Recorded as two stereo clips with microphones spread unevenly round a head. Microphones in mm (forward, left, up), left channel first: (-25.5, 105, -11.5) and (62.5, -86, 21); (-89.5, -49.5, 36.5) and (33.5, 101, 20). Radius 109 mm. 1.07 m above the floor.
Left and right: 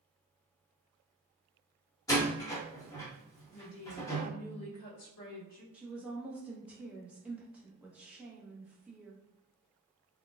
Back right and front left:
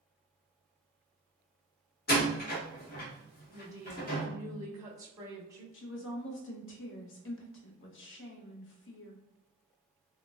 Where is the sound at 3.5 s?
125° left, 1.5 m.